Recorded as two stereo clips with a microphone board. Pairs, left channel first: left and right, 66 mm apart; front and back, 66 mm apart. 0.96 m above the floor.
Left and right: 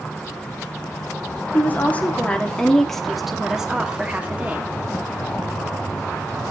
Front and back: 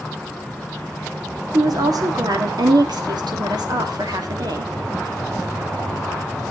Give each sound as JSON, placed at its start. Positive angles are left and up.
{"t": 1.5, "sound": "a woman speaking", "azimuth_deg": 150, "distance_m": 2.0}